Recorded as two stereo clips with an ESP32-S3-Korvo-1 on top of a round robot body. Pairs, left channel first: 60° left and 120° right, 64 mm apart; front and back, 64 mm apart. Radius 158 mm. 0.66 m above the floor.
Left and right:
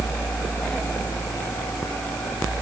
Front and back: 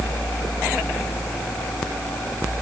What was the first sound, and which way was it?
Only background noise.